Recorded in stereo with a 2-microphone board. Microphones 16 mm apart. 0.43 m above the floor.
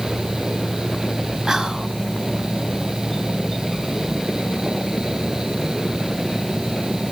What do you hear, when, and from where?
1.5 s whispering: 55° right (ahead or behind), 2.5 m